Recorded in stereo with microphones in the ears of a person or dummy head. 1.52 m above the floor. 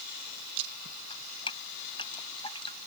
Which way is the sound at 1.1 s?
25° left (ahead or behind).